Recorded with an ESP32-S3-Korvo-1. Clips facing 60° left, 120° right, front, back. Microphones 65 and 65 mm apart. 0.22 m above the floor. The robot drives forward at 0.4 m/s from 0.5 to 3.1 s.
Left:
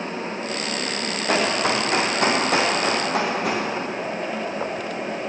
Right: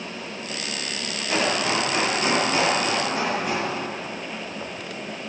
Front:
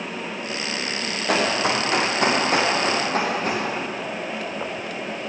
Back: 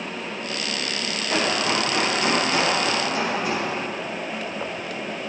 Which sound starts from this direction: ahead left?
Running footsteps, at 1.3 s.